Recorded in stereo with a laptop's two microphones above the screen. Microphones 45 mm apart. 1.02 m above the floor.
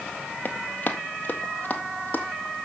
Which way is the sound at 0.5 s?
40° left (ahead or behind).